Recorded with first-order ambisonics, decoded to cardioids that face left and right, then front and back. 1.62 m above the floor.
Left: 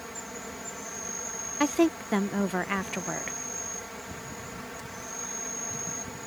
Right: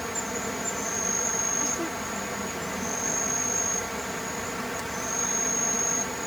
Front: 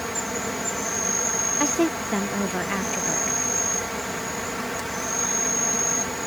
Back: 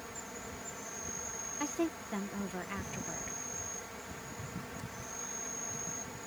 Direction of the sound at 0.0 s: 35° right.